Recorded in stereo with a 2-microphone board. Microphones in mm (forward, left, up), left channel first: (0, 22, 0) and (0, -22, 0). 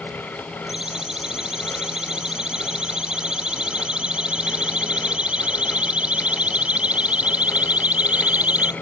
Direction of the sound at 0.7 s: 15° right (ahead or behind).